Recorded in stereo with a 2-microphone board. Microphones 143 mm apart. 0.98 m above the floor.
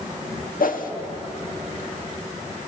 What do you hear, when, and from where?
0.6 s a whoosh: 75° left (ahead or behind), 1.5 m